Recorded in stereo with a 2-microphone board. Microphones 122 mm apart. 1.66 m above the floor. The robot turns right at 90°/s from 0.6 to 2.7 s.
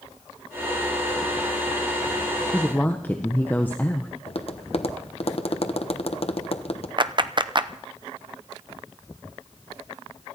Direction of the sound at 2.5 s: Centre (ahead or behind).